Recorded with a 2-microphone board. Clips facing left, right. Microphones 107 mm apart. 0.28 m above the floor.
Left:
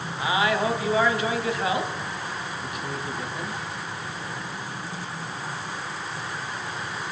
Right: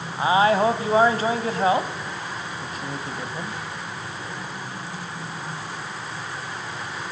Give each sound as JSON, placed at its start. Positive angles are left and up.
{"t": 0.2, "sound": "a man speaking", "side_deg": -35, "distance_m": 1.6}